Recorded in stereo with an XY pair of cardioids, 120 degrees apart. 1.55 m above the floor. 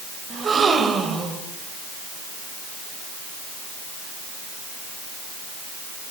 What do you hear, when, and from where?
0.3 s a gasp: 35° right, 3.5 m